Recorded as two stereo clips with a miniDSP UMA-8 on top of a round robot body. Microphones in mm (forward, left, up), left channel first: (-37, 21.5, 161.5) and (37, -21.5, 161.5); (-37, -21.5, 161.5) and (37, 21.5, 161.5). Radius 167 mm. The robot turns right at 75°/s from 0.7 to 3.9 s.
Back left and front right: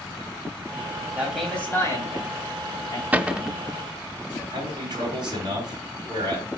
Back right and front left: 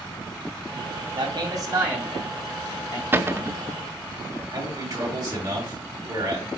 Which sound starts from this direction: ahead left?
A man speaking, at 1.1 s.